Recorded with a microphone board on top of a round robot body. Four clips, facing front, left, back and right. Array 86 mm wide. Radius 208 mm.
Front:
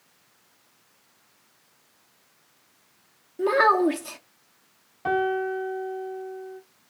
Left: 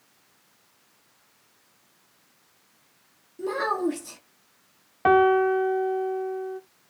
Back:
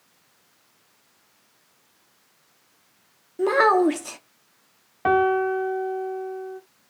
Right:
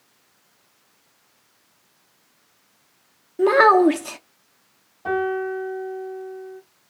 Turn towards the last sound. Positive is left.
turn(degrees=120)